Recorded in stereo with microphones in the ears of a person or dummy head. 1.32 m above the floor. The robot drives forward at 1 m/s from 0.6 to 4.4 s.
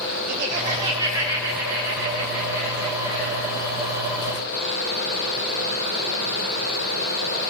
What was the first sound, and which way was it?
Laughter, 40° right (ahead or behind).